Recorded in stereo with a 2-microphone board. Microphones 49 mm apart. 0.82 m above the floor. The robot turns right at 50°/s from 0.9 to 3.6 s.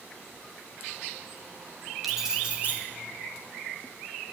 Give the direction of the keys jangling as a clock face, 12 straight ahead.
6 o'clock.